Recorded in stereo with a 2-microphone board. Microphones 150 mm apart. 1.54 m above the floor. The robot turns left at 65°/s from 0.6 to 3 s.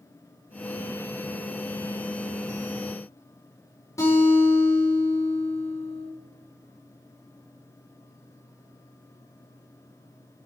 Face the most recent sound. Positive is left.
turn(degrees=20)  # may be behind; listen again after turning